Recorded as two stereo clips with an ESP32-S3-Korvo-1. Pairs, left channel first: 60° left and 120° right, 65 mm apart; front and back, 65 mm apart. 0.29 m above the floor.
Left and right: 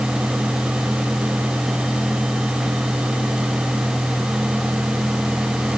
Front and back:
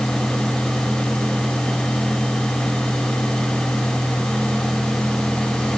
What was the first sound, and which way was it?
Only background noise.